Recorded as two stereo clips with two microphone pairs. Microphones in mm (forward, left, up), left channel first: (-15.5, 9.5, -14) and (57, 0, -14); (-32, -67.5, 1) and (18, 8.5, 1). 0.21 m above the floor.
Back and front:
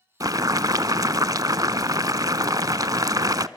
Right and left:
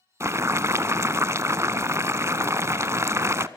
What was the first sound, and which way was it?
Boiling, straight ahead.